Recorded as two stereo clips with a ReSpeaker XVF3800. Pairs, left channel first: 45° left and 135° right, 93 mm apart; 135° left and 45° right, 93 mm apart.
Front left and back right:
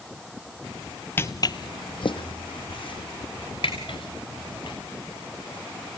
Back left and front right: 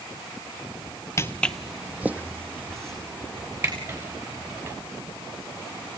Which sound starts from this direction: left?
Footsteps, at 1.2 s.